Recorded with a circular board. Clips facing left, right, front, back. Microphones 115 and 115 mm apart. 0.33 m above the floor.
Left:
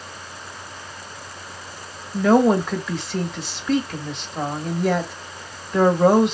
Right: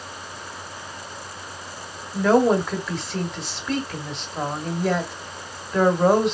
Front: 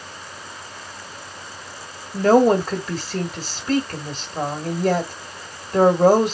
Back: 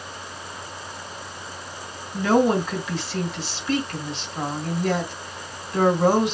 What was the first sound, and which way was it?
A woman speaking, straight ahead.